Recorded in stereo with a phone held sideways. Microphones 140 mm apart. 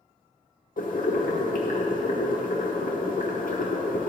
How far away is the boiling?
About 1.1 m.